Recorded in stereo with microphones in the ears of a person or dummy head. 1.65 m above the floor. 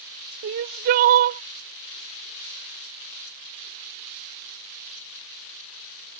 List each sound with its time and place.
0.4 s crying: 40° right (ahead or behind)